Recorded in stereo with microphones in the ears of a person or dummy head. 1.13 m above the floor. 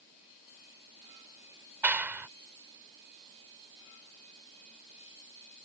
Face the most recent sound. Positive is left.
turn(degrees=-10)  # may be behind; listen again after turning